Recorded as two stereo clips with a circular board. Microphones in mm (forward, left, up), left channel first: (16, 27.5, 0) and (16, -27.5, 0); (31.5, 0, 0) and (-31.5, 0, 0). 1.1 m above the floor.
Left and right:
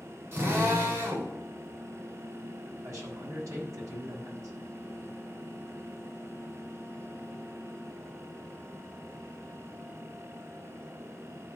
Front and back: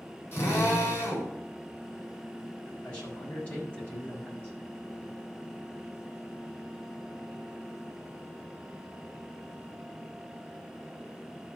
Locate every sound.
0.3 s a drill: 55° right, 4.5 m
2.8 s a man speaking: 70° right, 5 m